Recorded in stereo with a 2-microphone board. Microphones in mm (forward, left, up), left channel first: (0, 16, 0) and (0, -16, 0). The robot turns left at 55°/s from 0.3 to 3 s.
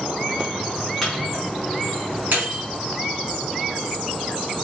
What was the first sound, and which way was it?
A microwave, 10° left (ahead or behind).